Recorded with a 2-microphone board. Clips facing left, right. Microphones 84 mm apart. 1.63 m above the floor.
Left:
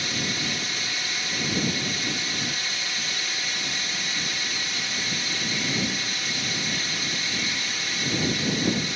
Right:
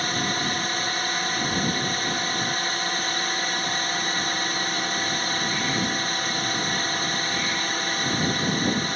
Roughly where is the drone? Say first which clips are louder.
Right 4 dB; right.